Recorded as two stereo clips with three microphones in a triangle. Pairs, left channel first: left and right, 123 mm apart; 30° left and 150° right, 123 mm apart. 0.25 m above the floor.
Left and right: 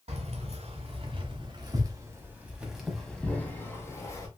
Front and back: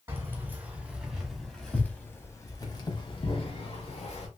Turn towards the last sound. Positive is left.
turn(degrees=35)